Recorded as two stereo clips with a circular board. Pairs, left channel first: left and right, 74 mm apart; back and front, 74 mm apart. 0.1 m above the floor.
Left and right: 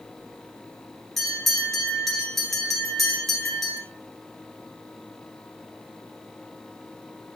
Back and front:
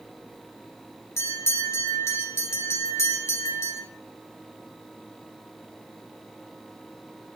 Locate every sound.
1.2 s a bell: 175° left, 1.7 m